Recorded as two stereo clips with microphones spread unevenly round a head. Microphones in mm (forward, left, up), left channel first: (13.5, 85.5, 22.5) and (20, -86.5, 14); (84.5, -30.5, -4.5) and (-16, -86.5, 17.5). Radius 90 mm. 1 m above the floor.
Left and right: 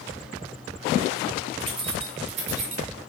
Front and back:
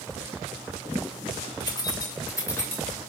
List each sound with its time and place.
1.6 s keys jangling: 25° right, 1.8 m; by 2.9 s 40° right, 2.5 m